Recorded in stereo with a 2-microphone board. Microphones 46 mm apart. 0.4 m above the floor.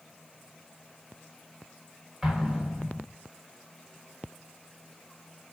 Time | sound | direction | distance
2.2 | an explosion | 5° right (ahead or behind) | 0.8 m